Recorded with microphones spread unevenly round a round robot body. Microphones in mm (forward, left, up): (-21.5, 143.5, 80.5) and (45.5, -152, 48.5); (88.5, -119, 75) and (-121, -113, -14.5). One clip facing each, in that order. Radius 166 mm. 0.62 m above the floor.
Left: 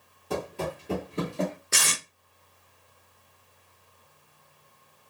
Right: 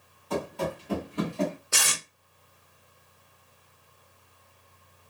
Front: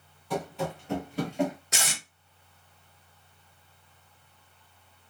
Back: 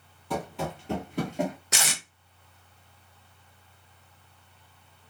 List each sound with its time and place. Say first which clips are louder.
0.3 s running footsteps: right 1 dB, front 1 dB; 155° left, 0.9 m; by 1.6 s 100° left, 0.6 m
1.7 s tape being pulled: left 1 dB, back 2 dB; 175° left, 0.6 m